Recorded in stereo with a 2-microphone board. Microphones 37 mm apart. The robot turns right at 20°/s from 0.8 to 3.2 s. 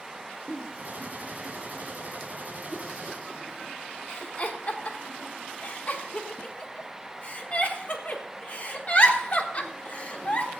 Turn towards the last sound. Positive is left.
turn(degrees=35)  # may be behind; listen again after turning